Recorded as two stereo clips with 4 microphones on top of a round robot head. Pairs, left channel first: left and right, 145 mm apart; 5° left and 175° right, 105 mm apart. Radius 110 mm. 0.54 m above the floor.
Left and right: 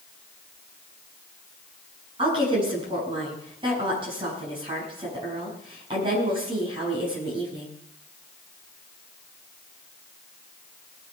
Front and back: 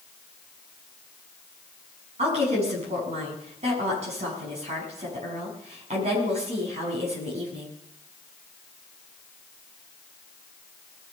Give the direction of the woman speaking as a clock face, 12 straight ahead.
5 o'clock.